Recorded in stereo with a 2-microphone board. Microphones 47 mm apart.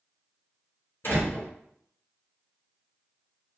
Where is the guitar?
I don't hear a guitar.